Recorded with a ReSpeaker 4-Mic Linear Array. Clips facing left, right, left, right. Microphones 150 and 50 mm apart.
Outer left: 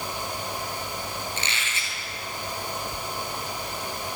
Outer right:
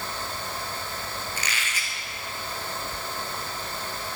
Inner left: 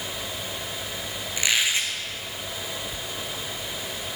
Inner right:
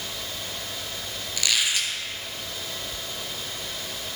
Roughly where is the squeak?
Left.